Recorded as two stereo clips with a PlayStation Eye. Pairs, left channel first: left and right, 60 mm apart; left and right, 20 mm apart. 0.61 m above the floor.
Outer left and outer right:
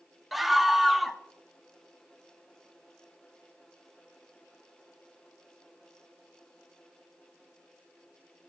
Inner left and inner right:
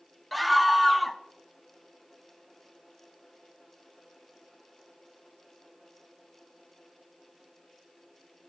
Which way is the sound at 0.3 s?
Centre (ahead or behind).